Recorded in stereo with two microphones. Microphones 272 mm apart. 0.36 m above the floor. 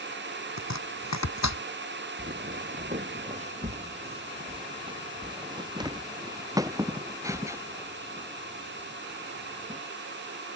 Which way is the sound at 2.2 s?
35° right (ahead or behind).